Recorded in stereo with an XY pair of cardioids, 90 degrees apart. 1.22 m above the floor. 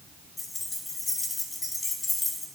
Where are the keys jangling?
30° left, 1.5 m.